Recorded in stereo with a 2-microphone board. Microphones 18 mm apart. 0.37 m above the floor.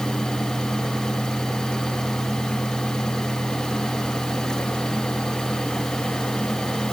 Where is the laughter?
No laughter in this recording.